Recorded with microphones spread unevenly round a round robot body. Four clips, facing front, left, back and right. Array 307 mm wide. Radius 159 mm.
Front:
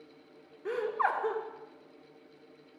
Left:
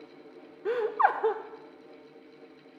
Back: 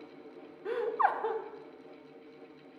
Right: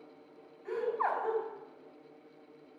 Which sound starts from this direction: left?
Laughter, at 0.7 s.